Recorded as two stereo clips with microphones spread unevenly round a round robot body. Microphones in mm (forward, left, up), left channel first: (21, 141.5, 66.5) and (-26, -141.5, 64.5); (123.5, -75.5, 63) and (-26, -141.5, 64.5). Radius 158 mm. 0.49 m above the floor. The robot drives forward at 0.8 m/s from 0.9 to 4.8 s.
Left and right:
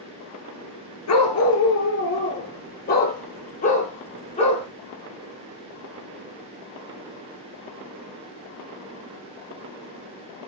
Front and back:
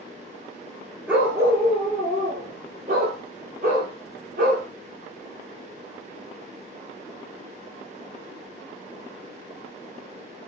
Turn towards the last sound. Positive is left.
turn(degrees=150)